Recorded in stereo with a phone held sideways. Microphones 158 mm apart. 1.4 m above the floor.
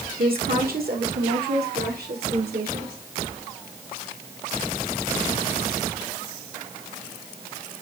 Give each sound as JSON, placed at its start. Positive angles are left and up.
{"t": 0.2, "sound": "a woman speaking", "side_deg": -70, "distance_m": 1.5}